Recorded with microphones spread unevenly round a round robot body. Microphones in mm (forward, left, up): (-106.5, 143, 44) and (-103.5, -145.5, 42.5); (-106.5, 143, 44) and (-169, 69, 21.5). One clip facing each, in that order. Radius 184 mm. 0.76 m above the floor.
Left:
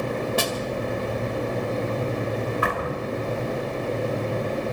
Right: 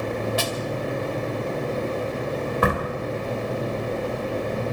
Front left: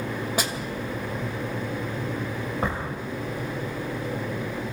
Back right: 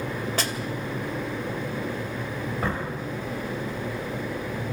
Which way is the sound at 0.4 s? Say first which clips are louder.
Left 2 dB, front left 2 dB; 130° left.